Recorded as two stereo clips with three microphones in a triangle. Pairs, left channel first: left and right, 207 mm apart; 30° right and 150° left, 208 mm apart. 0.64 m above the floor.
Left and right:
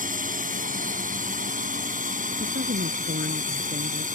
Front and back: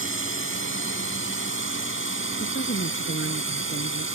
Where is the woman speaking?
55° right.